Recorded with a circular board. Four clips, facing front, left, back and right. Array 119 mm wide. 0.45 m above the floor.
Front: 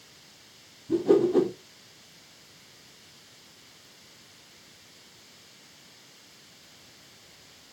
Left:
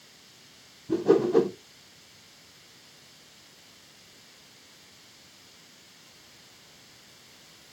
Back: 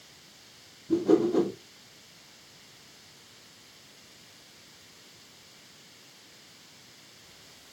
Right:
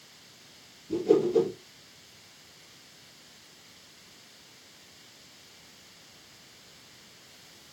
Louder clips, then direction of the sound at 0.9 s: Left 2 dB, front 2 dB; 85° left.